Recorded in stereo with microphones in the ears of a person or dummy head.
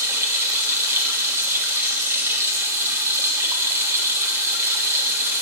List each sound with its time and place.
0.0 s running water: 15° right (ahead or behind), 1.0 m